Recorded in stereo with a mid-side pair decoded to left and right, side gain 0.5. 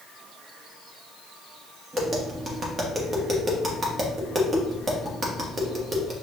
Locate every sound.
1.9 s tapping: 30° right, 1.4 m